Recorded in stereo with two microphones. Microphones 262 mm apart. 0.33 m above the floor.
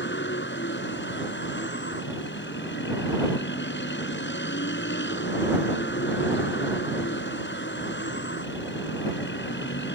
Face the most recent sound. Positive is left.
turn(degrees=45)  # may be behind; listen again after turning